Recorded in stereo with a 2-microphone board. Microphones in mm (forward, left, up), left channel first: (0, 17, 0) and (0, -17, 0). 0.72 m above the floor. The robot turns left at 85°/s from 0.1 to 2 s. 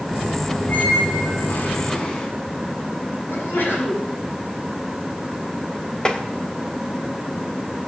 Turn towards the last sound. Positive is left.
turn(degrees=20)  # may be behind; listen again after turning